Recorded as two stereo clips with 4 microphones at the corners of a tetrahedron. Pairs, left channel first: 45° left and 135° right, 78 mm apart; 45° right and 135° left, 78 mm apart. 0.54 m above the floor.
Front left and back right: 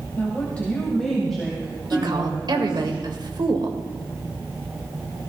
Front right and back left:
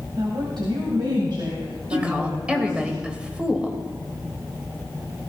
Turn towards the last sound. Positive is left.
turn(degrees=-150)